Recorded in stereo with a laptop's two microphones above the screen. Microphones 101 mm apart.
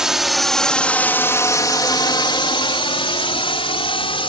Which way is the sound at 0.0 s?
5° right (ahead or behind).